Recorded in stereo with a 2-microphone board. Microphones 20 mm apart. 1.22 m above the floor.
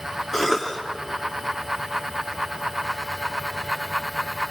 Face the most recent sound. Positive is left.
turn(degrees=10)  # may be behind; listen again after turning